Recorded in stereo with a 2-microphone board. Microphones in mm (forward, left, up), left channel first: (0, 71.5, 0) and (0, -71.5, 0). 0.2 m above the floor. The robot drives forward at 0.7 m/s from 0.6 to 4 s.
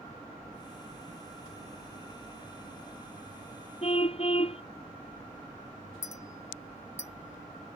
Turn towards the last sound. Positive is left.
turn(degrees=15)  # may be behind; listen again after turning